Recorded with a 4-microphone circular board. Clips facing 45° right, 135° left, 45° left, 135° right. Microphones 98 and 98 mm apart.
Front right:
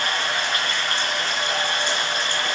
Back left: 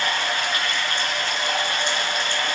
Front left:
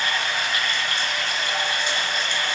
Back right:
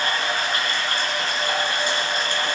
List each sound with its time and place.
0.0 s running water: 85° right, 5.5 m